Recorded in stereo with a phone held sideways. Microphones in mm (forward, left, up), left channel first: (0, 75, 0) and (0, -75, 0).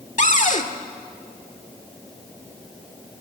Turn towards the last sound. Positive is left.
turn(degrees=55)  # may be behind; listen again after turning